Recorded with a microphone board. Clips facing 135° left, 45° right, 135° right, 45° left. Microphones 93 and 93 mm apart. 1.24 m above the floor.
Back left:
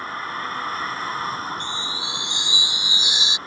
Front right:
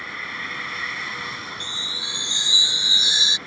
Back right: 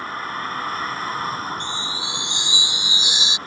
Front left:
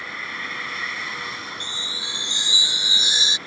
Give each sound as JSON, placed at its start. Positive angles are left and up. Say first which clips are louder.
{"t": 0.0, "sound": "a vehicle", "louder": "back left 5 dB, back right 6 dB", "azimuth_deg": 180}
{"t": 1.6, "sound": "a chime", "louder": "back left 6 dB, back right 6 dB", "azimuth_deg": 0}